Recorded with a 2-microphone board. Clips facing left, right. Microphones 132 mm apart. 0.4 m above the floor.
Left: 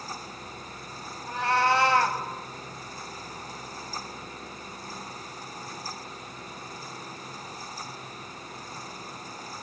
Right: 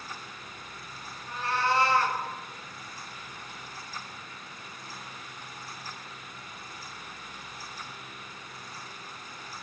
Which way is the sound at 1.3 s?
70° left (ahead or behind).